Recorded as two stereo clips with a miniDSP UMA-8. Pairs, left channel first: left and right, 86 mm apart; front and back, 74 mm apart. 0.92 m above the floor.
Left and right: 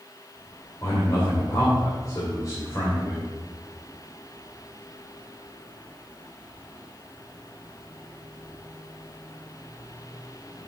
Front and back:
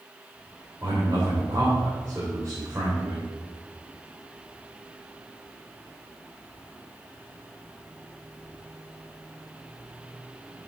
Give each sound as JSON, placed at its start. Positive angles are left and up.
{"t": 0.8, "sound": "a man speaking", "azimuth_deg": 135, "distance_m": 3.0}